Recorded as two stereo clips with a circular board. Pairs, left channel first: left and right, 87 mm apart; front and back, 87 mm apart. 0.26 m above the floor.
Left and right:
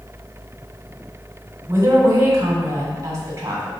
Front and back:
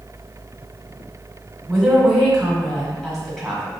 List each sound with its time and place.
1.7 s a woman speaking: 85° right, 1.2 m